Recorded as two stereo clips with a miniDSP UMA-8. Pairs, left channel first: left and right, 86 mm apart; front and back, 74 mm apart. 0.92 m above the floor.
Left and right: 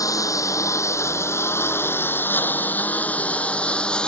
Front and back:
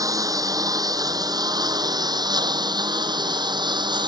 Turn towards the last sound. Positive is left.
turn(degrees=170)